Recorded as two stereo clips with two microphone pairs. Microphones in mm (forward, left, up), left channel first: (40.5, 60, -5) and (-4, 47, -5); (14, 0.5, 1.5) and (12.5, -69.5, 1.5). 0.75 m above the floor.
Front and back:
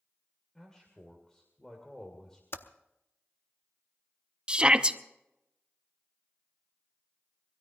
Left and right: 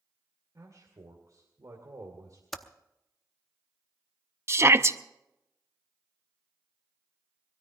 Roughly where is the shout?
Right.